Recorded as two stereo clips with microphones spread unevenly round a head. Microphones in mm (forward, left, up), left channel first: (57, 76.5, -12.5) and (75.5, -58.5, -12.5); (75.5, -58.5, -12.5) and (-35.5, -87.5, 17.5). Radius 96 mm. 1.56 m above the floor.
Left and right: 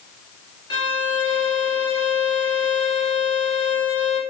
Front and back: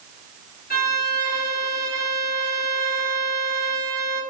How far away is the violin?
About 1.0 m.